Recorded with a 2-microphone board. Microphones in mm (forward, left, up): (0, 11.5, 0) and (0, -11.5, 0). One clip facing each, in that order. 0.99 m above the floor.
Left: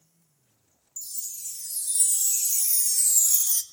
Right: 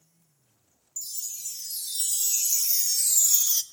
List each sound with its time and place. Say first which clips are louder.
1.0 s a chime: right 2 dB; 35° right (ahead or behind), 0.6 m